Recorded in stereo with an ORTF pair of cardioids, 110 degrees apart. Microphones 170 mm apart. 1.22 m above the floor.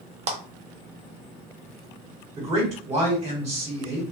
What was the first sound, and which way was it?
A clap, 40° right.